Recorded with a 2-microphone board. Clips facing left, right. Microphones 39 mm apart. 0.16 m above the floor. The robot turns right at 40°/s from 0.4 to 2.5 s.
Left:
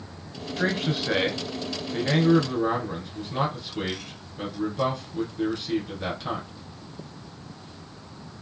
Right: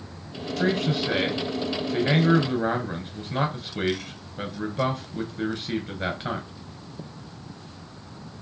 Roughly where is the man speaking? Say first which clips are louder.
Right 2 dB; behind left.